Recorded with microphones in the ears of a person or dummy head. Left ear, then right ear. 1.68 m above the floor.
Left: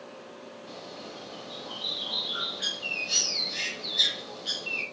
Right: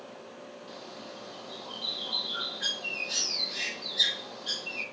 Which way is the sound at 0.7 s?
35° left (ahead or behind).